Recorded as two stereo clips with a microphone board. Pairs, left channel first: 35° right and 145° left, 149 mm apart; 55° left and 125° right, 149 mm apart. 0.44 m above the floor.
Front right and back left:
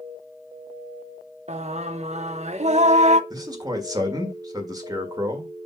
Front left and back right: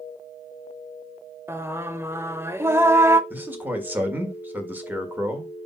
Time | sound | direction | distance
1.5 | singing | 165° left | 0.5 m
3.3 | a man speaking | 170° left | 1.5 m